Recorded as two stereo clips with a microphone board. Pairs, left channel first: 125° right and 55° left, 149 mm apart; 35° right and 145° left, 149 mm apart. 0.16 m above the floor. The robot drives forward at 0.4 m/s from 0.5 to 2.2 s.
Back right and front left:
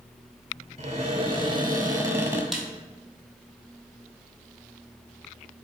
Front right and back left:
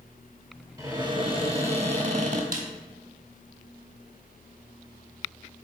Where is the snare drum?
145° left, 1.2 m.